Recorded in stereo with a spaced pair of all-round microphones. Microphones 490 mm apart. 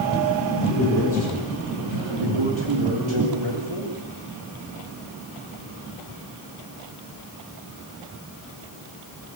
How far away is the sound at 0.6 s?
About 10 m.